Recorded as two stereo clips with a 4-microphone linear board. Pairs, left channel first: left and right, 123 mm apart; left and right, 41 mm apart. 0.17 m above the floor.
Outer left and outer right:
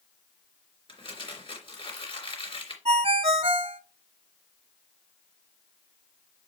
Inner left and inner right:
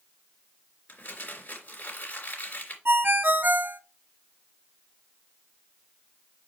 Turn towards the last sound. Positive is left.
turn(degrees=-50)  # may be behind; listen again after turning